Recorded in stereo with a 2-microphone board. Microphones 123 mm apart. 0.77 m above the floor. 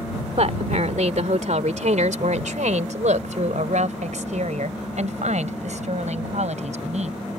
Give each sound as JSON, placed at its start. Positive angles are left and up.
{"t": 0.4, "sound": "a woman speaking", "side_deg": -65}